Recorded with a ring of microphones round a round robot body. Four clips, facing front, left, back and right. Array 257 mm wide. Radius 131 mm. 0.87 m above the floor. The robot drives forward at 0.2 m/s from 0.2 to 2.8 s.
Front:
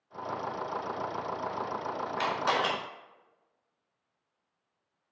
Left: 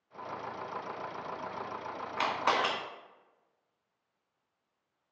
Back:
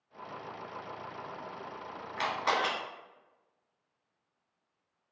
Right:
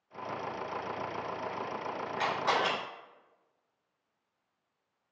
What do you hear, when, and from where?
2.2 s a camera shutter: 95° left, 1.1 m; by 2.7 s 100° left, 1.2 m